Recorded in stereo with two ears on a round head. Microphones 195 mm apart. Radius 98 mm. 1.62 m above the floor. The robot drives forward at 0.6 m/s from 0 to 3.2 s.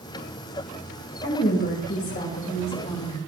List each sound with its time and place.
1.2 s a woman speaking: 45° left (ahead or behind), 2.5 m; by 3.2 s 30° left (ahead or behind), 3.5 m